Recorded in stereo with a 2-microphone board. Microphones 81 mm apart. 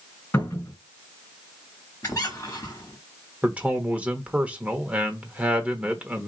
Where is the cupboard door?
25° left (ahead or behind), 3 m.